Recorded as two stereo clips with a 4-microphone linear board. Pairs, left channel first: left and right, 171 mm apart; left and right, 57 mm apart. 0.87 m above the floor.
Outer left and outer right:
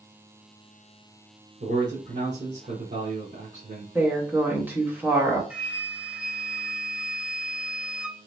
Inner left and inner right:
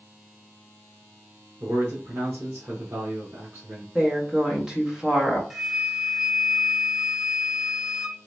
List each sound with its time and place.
1.6 s a man speaking: 45° right (ahead or behind), 1.4 m
4.0 s a woman speaking: 10° right (ahead or behind), 1.4 m
5.5 s a flute: 5° right (ahead or behind), 0.7 m